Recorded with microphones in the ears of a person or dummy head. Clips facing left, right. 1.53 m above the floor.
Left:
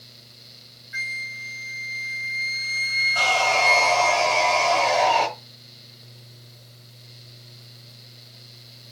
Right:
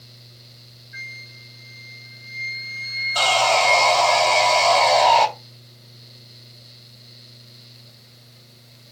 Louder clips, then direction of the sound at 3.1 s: Right 4 dB; 50° right (ahead or behind).